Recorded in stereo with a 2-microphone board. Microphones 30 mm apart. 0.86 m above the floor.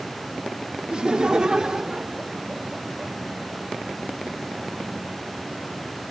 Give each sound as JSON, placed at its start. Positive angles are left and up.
{"t": 0.9, "sound": "laughter", "side_deg": -40}